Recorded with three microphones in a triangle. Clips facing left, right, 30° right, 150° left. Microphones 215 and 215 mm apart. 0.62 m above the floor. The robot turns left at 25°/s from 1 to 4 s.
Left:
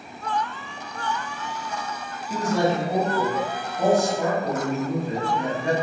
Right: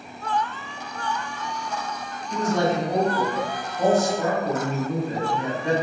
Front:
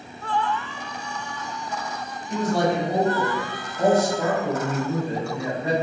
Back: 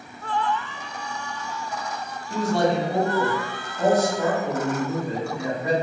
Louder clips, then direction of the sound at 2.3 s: Even, even; 60° left.